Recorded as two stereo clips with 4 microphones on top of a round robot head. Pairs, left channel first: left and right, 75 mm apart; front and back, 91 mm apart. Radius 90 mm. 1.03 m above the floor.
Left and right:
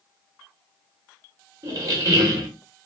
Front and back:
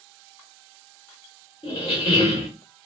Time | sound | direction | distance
1.6 | a squeak | 50° right | 1.0 m